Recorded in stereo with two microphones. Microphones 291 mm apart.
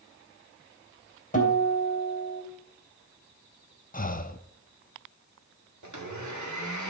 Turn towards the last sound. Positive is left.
turn(degrees=-80)